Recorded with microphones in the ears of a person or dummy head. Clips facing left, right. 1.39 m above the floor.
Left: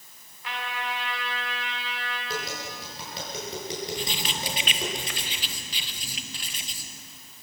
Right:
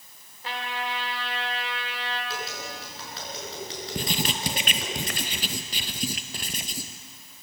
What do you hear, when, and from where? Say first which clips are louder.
0.4 s a trumpet: right 1 dB; 30° right (ahead or behind), 3.5 m
2.3 s tapping: left 1 dB; 15° left (ahead or behind), 7 m
4.0 s writing: right 3 dB; 40° right (ahead or behind), 1.0 m